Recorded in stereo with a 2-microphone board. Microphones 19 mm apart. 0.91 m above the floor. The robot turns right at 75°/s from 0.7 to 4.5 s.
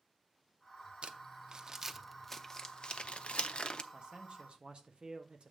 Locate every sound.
1.0 s crumpling: 70° right (ahead or behind), 0.6 m; by 3.8 s 45° left (ahead or behind), 0.6 m
3.9 s a man speaking: 130° right, 1.3 m; by 5.5 s 85° right, 1.3 m